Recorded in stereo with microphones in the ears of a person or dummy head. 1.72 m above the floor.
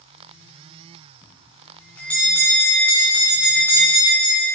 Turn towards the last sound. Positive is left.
turn(degrees=10)  # may be behind; listen again after turning